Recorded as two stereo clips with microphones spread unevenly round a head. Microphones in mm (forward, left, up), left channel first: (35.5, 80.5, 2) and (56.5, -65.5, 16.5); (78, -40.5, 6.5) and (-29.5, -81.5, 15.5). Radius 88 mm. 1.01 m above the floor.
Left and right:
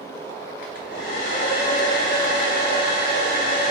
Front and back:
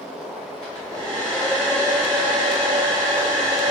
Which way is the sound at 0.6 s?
135° left.